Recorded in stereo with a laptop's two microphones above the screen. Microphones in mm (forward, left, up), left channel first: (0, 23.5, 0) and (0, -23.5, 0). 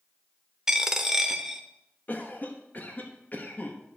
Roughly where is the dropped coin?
Centre.